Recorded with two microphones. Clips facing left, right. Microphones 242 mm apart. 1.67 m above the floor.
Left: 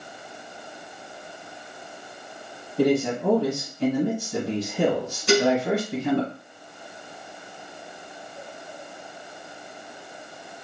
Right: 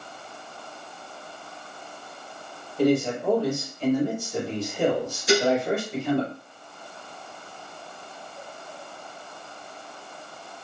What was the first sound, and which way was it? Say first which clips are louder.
A man speaking: left 1 dB; 65° left (ahead or behind).